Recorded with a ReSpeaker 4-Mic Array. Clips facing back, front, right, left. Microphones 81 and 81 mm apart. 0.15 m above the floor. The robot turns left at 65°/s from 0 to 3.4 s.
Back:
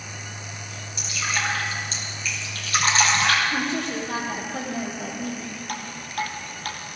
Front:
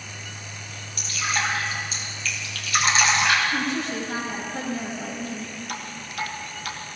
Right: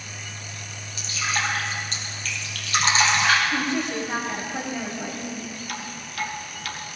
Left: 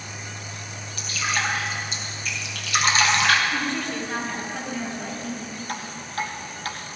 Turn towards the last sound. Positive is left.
turn(degrees=145)